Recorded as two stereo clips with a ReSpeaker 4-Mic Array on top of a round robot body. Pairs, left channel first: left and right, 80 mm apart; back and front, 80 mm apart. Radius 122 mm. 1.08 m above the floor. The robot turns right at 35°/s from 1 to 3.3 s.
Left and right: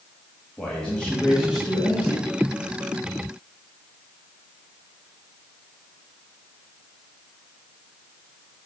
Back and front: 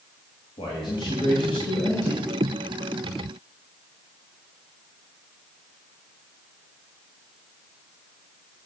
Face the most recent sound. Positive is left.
turn(degrees=-110)